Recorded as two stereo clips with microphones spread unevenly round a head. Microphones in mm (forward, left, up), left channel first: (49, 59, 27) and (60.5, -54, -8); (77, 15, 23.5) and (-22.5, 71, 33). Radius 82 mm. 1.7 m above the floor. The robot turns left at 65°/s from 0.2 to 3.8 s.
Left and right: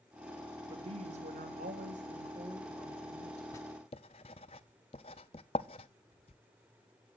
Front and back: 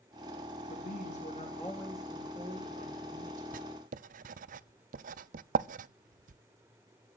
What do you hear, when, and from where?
0.7 s a woman speaking: 35° right, 4 m; by 3.4 s 145° left, 4 m
3.5 s writing: 170° left, 0.5 m; by 6.4 s 155° left, 0.5 m